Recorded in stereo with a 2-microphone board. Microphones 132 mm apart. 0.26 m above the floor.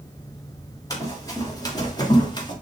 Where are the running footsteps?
25° left (ahead or behind), 6 m; by 2.5 s 35° left (ahead or behind), 4.5 m.